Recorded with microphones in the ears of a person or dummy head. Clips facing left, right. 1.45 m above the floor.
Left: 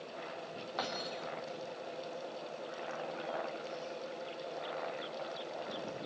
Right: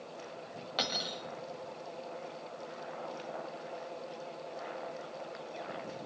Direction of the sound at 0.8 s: 35° right (ahead or behind).